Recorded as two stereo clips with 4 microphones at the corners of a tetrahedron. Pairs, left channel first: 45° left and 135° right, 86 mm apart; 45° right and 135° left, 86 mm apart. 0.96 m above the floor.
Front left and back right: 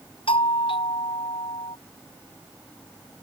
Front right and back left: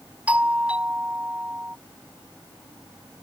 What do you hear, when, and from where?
0.3 s a doorbell: 60° left